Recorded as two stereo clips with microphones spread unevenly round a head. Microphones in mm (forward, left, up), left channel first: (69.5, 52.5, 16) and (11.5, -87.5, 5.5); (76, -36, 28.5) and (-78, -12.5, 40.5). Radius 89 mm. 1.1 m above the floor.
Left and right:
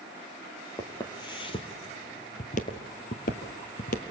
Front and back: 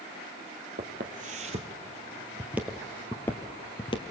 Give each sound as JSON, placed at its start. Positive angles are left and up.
{"t": 0.8, "sound": "footsteps", "azimuth_deg": 135, "distance_m": 2.0}